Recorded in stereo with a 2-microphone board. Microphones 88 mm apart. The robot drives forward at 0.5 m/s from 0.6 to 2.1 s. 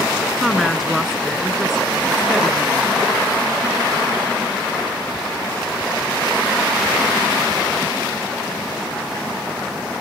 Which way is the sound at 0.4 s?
Centre (ahead or behind).